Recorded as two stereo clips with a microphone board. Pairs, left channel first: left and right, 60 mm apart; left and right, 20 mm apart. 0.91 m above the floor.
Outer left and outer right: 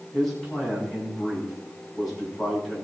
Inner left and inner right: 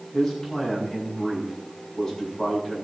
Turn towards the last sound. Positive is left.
turn(degrees=10)  # may be behind; listen again after turning